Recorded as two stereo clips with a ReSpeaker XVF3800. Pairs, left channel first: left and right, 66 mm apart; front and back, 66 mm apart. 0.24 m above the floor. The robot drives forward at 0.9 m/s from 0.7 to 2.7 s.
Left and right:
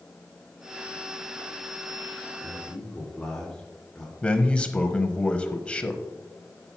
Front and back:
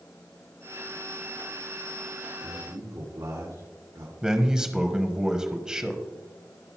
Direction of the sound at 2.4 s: 170° left.